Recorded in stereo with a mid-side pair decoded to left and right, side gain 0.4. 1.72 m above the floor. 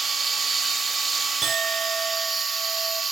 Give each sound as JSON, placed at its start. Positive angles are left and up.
{"t": 0.0, "sound": "a machine running", "azimuth_deg": -35, "distance_m": 1.9}
{"t": 1.4, "sound": "a clink", "azimuth_deg": -40, "distance_m": 3.0}